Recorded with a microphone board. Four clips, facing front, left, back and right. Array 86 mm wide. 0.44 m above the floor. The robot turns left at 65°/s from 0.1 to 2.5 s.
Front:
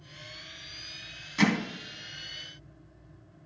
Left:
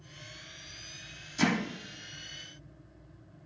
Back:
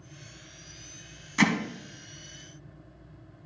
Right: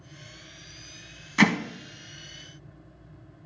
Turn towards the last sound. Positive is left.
turn(degrees=-175)